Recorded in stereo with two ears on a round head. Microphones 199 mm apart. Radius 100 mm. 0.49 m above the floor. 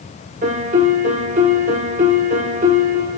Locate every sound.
0.4 s a piano: 35° right (ahead or behind), 0.7 m